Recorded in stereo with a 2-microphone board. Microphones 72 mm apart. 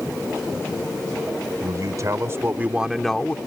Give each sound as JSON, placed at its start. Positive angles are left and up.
{"t": 1.6, "sound": "a man speaking", "side_deg": -60}